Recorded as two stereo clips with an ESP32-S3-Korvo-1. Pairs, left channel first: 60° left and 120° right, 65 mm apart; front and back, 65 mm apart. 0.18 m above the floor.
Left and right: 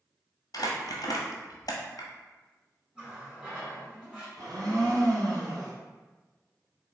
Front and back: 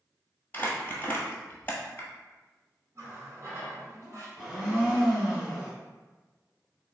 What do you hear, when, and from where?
0.5 s crumpling: 60° left, 0.7 m
3.0 s a running tap: 165° left, 1.4 m
4.4 s a blender: 90° right, 1.7 m